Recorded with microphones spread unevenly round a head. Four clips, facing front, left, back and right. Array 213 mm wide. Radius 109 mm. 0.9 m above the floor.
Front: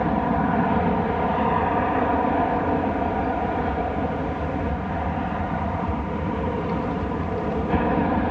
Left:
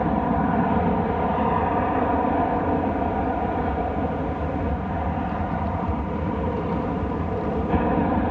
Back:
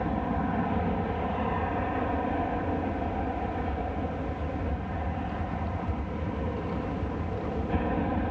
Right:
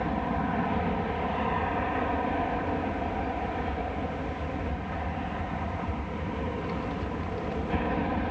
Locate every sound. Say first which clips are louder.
0.0 s an aircraft: left 7 dB, front 8 dB; 45° left